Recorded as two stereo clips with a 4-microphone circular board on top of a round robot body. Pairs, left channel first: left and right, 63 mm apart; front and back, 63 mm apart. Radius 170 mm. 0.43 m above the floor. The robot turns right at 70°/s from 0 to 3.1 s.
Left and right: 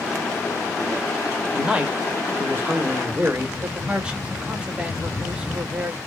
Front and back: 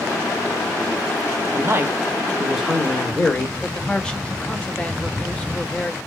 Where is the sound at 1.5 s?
165° right, 1.4 m; by 3.5 s 55° right, 1.4 m.